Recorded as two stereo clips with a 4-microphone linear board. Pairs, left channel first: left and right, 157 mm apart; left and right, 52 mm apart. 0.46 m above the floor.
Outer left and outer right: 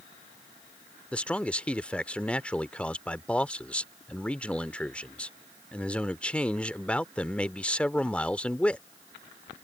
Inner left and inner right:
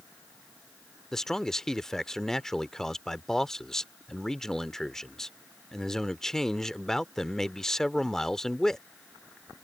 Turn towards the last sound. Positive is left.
turn(degrees=10)  # may be behind; listen again after turning